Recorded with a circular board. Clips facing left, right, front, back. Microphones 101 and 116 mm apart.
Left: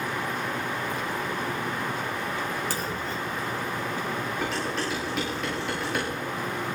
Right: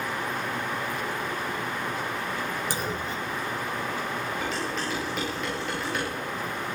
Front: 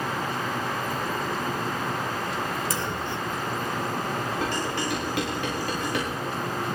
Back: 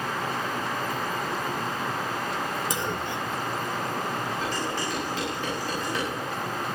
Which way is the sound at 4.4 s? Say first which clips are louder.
Left 1 dB, front 1 dB; straight ahead.